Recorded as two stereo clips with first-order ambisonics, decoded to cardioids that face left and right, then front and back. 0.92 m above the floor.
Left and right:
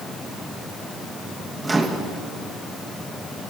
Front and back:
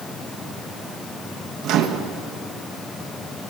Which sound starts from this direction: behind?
A microwave, at 1.6 s.